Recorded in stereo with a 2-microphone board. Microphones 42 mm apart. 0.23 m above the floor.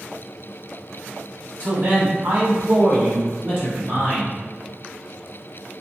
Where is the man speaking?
45° right (ahead or behind), 1.7 m; by 4.3 s 35° right (ahead or behind), 2.5 m.